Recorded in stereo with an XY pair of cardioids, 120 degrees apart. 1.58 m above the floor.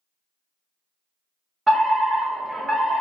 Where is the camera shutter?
I don't hear a camera shutter.